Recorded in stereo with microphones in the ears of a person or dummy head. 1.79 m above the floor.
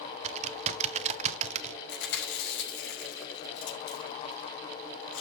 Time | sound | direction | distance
0.2 | typing on a keyboard | 40° right (ahead or behind) | 0.8 m
1.9 | chewing | 80° left | 5.5 m